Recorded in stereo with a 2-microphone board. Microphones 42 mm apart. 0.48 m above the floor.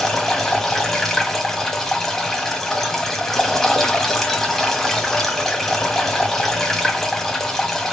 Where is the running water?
5° left (ahead or behind), 1.1 m.